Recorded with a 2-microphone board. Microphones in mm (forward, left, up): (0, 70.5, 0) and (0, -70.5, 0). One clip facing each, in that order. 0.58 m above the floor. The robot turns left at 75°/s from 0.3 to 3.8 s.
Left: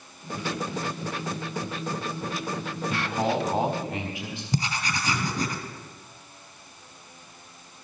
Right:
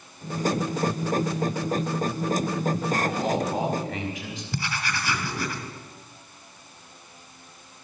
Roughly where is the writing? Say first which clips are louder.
Left 2 dB; centre.